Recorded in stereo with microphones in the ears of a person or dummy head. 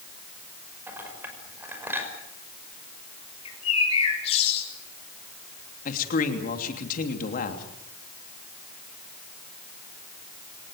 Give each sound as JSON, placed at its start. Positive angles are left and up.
{"t": 0.9, "sound": "a clink", "side_deg": -15, "distance_m": 5.5}
{"t": 3.5, "sound": "a bird", "side_deg": 30, "distance_m": 7.5}
{"t": 5.8, "sound": "a man speaking", "side_deg": 45, "distance_m": 3.0}